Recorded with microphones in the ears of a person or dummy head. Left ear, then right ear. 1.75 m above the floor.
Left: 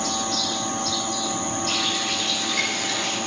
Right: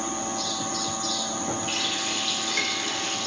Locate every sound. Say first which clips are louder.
1.7 s a running tap: left 5 dB; 20° right (ahead or behind), 4 m